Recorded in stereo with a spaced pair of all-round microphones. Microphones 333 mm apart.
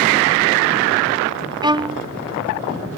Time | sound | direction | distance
1.6 | a violin | 15° right (ahead or behind) | ?